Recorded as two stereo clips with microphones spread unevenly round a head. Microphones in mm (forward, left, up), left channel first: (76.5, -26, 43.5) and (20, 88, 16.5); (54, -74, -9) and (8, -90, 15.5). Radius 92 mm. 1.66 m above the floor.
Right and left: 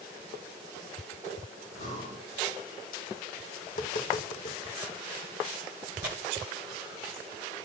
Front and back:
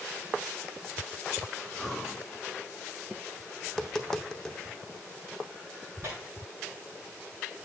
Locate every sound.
1.7 s breathing: 75° right, 2.5 m
3.7 s tapping: 70° right, 0.8 m
6.0 s tearing paper: 145° left, 1.6 m